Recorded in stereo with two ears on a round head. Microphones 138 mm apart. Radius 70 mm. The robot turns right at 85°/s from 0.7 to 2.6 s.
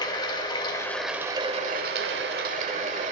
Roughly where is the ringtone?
I don't hear a ringtone.